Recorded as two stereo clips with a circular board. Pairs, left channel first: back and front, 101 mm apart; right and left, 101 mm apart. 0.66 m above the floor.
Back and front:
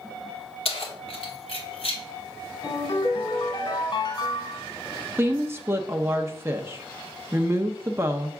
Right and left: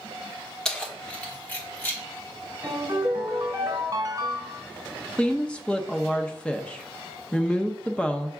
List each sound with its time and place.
0.7 s keys jangling: 175° right, 1.3 m; by 2.0 s 160° right, 2 m
2.6 s a ringtone: 145° left, 2.5 m
5.2 s a woman speaking: 25° right, 0.5 m